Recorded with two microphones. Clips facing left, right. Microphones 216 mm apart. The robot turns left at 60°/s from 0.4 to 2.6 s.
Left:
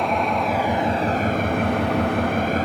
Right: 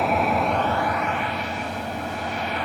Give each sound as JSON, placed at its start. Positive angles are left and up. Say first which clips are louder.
{"t": 0.0, "sound": "an engine running", "louder": "even", "azimuth_deg": 180, "distance_m": 0.9}